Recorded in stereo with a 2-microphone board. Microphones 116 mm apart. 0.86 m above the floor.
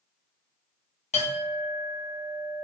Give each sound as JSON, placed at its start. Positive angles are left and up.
{"t": 1.1, "sound": "a clink", "side_deg": 80, "distance_m": 1.0}